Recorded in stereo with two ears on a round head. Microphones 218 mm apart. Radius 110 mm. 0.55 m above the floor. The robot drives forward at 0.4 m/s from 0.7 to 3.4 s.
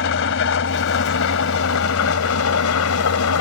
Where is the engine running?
55° left (ahead or behind); by 3.4 s 70° left (ahead or behind).